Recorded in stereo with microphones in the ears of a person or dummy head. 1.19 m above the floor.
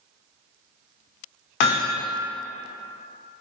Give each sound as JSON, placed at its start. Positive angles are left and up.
{"t": 1.6, "sound": "hammering", "side_deg": 60, "distance_m": 0.5}